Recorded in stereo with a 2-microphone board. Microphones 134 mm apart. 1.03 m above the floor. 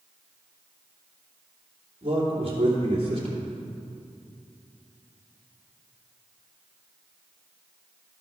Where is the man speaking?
45° right (ahead or behind), 3 m.